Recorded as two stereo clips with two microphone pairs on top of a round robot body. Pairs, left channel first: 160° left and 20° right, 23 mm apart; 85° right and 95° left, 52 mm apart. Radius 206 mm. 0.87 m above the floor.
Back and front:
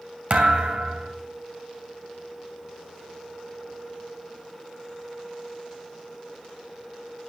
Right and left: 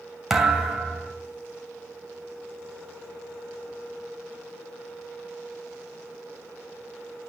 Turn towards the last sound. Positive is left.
turn(degrees=15)